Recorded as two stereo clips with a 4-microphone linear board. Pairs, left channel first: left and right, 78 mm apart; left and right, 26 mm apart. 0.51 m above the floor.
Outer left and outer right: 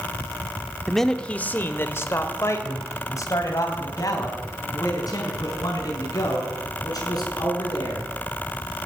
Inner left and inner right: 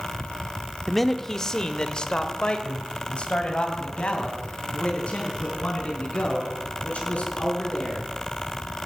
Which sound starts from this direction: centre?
A man speaking, at 0.9 s.